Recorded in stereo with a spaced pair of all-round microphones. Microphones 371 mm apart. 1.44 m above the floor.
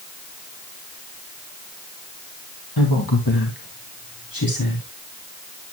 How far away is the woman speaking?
About 2 m.